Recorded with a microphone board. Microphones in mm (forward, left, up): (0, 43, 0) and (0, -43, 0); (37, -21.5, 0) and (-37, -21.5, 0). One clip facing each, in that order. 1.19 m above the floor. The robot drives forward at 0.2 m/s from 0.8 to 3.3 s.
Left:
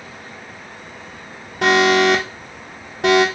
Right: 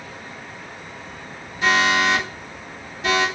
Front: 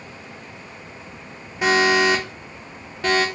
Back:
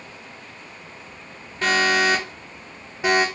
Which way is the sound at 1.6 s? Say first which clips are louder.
Left 5 dB, front 2 dB; 75° left.